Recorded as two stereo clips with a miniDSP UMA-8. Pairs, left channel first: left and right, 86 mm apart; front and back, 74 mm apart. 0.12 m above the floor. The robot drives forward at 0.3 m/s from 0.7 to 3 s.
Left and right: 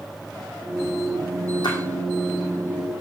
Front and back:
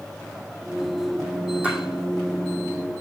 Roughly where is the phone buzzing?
I don't hear a phone buzzing.